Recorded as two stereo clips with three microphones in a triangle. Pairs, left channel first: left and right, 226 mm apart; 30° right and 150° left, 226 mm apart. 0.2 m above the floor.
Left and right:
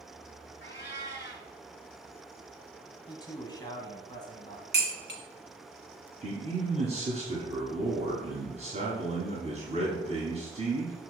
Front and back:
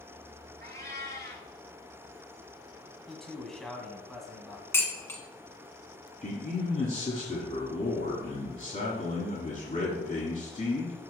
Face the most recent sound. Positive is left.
turn(degrees=-55)